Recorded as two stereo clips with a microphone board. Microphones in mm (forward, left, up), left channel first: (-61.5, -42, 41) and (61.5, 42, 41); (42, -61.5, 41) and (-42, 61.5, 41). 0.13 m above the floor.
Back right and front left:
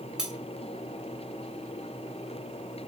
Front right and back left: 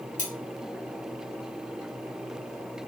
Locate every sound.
0.2 s cutlery clinking: 50° right, 1.0 m